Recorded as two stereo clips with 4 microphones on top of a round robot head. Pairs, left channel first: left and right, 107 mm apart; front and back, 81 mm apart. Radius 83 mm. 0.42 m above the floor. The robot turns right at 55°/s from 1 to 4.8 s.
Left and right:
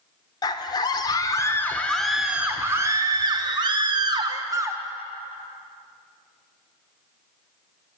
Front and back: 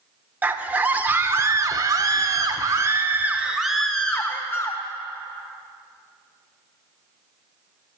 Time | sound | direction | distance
0.4 | a scream | 120° left | 1.0 m